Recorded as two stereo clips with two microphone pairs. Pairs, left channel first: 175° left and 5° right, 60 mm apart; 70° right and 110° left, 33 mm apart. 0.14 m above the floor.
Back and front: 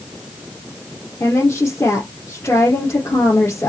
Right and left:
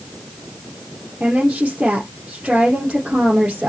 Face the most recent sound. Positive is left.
turn(degrees=160)